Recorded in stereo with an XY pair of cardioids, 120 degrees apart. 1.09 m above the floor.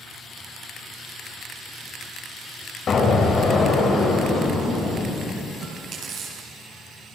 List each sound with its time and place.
2.9 s an explosion: 40° left, 4 m
5.6 s chewing: 50° right, 10 m